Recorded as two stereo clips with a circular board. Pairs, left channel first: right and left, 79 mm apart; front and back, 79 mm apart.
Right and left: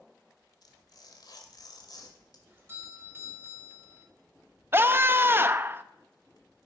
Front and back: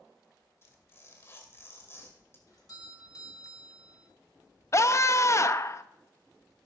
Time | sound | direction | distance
0.6 | tearing paper | 60° right | 1.9 m
2.5 | a doorbell | 30° left | 2.5 m
4.7 | a scream | 35° left | 0.5 m